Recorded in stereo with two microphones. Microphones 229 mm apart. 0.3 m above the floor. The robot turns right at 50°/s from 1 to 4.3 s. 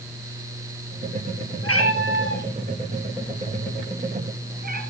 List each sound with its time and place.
1.6 s a cat meowing: 85° left, 3 m; by 4.8 s 40° right (ahead or behind), 3 m